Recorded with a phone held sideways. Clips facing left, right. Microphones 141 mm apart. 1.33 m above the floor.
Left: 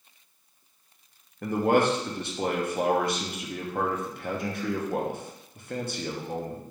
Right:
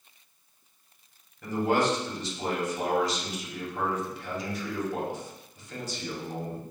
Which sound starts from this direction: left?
A man speaking, at 1.4 s.